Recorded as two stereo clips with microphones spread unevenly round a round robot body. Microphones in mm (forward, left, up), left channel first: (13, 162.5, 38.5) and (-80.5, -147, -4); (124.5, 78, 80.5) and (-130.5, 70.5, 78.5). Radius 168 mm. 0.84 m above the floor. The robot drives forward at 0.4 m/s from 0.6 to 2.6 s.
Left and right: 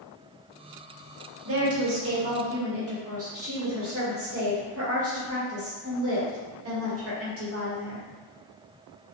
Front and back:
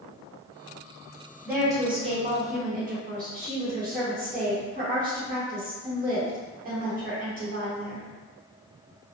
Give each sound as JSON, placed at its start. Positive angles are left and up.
{"t": 1.4, "sound": "a woman speaking", "azimuth_deg": -100, "distance_m": 0.9}